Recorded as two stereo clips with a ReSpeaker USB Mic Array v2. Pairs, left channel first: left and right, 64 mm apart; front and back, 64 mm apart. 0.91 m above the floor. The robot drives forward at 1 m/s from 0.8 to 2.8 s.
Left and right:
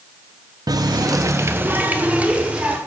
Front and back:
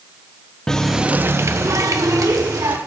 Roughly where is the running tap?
Right.